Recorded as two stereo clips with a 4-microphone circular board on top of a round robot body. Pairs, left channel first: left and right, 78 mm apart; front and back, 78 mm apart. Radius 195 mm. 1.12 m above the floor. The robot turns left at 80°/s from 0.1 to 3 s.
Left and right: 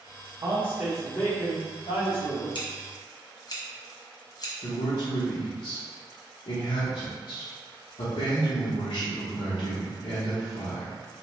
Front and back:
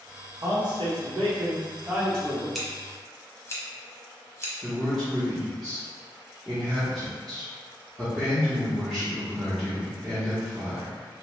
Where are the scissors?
90° left, 1.1 m; by 4.5 s 55° left, 1.1 m.